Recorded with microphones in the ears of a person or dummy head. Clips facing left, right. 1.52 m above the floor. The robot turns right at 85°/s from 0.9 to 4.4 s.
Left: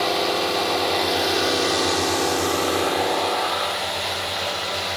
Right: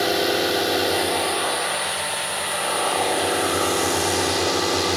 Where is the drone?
15° right (ahead or behind); by 5.0 s 70° right (ahead or behind).